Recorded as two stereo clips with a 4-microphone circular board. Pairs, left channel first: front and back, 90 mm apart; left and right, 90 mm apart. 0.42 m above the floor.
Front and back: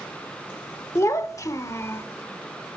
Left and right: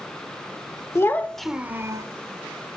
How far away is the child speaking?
About 1.0 m.